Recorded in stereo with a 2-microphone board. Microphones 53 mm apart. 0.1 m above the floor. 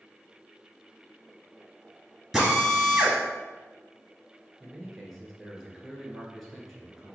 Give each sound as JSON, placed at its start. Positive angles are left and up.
{"t": 2.3, "sound": "a drill", "side_deg": -5, "distance_m": 1.6}
{"t": 4.6, "sound": "a man speaking", "side_deg": 0, "distance_m": 1.3}